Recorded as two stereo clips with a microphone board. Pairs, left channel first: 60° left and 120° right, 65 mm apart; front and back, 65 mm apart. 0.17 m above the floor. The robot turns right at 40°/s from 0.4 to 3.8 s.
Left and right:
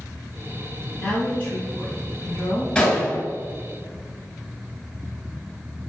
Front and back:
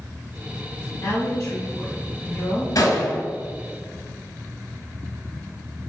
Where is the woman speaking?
20° right, 1.7 m; by 2.6 s 50° left, 1.7 m.